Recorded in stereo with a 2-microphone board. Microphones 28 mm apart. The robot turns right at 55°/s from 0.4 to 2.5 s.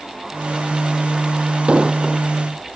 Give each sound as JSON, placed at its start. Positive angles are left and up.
{"t": 1.7, "sound": "an explosion", "side_deg": -40}